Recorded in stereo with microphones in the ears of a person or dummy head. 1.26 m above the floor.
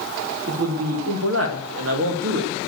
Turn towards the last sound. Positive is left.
turn(degrees=-65)  # may be behind; listen again after turning